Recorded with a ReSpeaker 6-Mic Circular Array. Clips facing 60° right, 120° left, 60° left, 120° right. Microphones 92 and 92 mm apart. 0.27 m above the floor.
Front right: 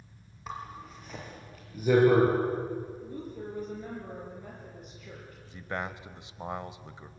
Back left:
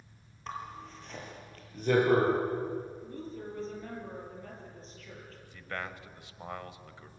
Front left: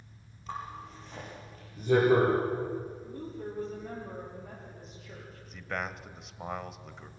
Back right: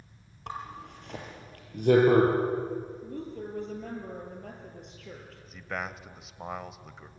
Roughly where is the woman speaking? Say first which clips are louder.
Front right 2 dB, back right 2 dB; behind right.